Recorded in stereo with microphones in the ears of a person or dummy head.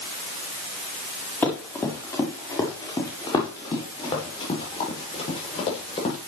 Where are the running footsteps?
15° left (ahead or behind), 7 m; by 6.2 s 40° left (ahead or behind), 11.5 m.